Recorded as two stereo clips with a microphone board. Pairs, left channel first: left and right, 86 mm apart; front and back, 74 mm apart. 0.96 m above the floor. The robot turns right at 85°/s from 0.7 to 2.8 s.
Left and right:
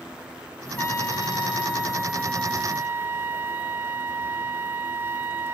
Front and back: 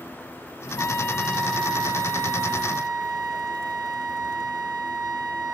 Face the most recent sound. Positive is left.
turn(degrees=-155)